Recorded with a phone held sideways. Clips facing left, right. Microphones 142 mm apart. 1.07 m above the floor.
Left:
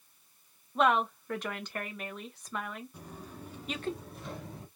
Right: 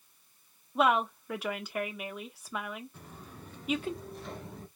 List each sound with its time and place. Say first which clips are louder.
0.8 s a woman speaking: even; 5° right (ahead or behind), 0.9 m
2.9 s footsteps: left 3 dB; 15° left (ahead or behind), 1.0 m; by 4.7 s centre (ahead or behind), 1.3 m